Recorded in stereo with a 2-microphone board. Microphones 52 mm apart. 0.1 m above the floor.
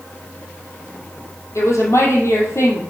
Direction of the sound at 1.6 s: 60° left (ahead or behind).